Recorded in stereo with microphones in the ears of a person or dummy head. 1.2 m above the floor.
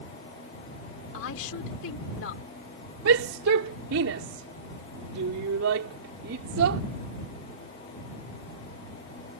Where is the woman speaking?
70° left (ahead or behind).